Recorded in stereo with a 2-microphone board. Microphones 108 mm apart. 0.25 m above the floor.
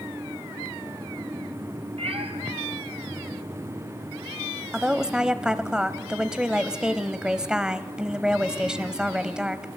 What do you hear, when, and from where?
2.0 s a cat meowing: 65° right (ahead or behind), 2 m
4.7 s a woman speaking: 10° right (ahead or behind), 1.0 m